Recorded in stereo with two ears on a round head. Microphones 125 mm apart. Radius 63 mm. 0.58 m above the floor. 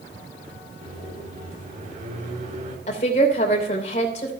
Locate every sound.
0.8 s a microwave: 60° right (ahead or behind), 3.5 m
2.9 s a woman speaking: 50° left (ahead or behind), 3 m